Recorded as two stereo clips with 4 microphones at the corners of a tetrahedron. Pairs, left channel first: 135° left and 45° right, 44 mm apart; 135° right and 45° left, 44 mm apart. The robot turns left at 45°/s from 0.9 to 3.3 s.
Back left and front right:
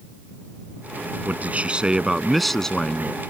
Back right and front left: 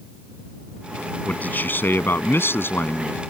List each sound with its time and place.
1.3 s a man speaking: 85° right; by 3.2 s 170° right